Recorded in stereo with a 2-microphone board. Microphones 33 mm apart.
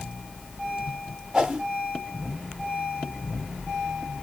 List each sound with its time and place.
1.3 s a whoosh: 25° right (ahead or behind), 1.7 m